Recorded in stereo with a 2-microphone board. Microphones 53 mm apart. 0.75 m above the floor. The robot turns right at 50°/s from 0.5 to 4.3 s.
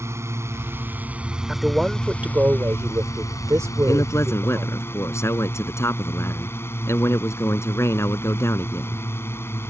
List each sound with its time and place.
0.0 s a drone: 60° right; by 9.7 s 130° left
1.5 s a man speaking: 175° left; by 4.8 s 45° right
3.9 s a man speaking: 80° left; by 9.0 s 60° left (ahead or behind)